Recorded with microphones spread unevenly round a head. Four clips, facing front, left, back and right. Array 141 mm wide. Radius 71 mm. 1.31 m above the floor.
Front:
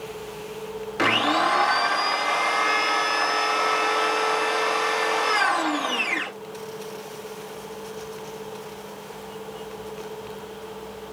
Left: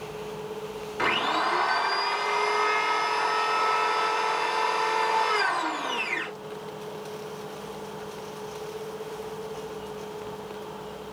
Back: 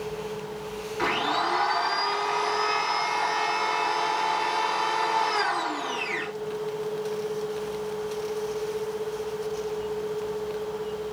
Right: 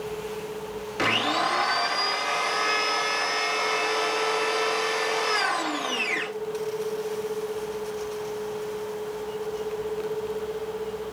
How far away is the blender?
About 2.5 m.